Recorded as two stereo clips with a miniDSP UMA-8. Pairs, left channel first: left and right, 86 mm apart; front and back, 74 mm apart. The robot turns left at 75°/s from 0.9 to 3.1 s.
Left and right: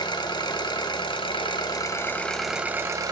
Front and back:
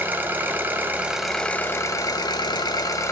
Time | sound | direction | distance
0.0 | an engine running | 115° left | 1.3 m